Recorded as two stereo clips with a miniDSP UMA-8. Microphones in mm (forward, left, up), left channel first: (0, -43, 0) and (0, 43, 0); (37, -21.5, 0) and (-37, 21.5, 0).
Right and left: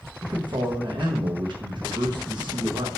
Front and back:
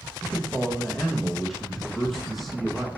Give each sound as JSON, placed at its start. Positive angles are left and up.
{"t": 0.2, "sound": "a man speaking", "azimuth_deg": 60, "distance_m": 0.9}